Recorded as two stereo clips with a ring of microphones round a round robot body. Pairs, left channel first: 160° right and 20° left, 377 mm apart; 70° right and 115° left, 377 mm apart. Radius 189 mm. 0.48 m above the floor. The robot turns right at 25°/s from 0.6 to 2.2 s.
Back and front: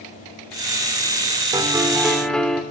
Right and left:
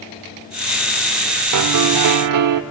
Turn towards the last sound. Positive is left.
turn(degrees=115)